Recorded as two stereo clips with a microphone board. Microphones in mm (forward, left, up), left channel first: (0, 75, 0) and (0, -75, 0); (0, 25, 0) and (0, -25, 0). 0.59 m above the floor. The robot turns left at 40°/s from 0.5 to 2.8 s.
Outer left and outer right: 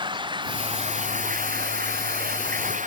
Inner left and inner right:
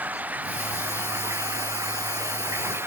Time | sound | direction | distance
0.0 | running water | 30° right | ?